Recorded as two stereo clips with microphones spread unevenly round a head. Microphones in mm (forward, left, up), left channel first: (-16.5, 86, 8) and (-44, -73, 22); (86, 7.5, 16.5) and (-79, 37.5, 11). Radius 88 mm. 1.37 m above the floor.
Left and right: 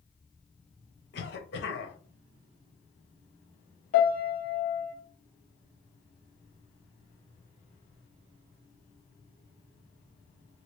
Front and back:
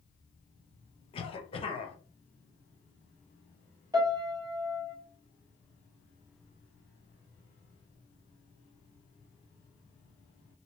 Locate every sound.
1.1 s a cough: 50° left, 0.8 m
3.9 s a piano: 110° left, 1.2 m